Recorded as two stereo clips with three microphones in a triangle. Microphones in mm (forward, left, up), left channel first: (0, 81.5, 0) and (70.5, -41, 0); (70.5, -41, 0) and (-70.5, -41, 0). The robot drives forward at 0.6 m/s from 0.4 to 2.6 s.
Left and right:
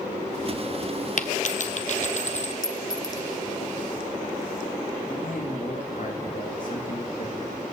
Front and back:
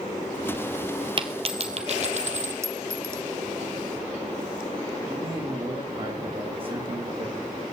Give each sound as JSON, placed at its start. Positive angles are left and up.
{"t": 1.2, "sound": "a dropped coin", "azimuth_deg": 130, "distance_m": 1.2}
{"t": 2.6, "sound": "a clink", "azimuth_deg": 135, "distance_m": 0.8}
{"t": 5.1, "sound": "a man speaking", "azimuth_deg": 130, "distance_m": 6.0}